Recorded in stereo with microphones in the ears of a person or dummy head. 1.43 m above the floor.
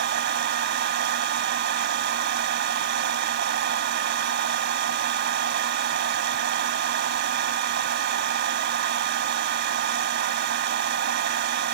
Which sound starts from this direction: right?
A fan, at 0.0 s.